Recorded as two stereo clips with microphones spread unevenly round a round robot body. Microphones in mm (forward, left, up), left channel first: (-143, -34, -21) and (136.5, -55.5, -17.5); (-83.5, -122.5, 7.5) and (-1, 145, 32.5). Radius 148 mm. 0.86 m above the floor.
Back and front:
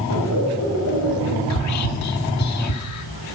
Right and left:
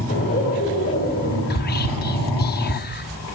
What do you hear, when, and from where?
0.1 s laughter: 165° right, 4.5 m
1.5 s whispering: 160° right, 1.7 m